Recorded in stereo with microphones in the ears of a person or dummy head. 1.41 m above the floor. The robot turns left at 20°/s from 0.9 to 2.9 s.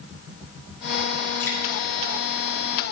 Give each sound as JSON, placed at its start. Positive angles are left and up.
{"t": 1.4, "sound": "dripping", "side_deg": 10, "distance_m": 1.3}